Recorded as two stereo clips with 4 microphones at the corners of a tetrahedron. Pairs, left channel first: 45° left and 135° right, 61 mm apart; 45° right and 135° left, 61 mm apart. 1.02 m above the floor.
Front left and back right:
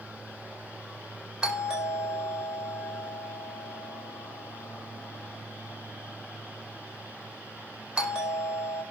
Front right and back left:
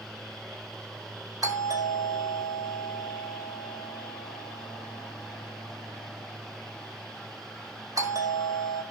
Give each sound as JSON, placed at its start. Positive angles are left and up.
{"t": 1.4, "sound": "a doorbell", "azimuth_deg": 150, "distance_m": 5.0}